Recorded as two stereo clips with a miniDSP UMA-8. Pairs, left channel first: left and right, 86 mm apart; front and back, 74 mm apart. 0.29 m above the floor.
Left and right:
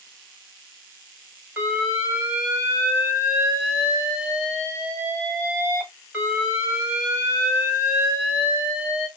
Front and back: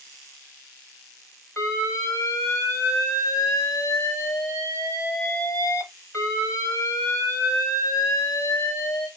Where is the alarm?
30° right, 1.6 m.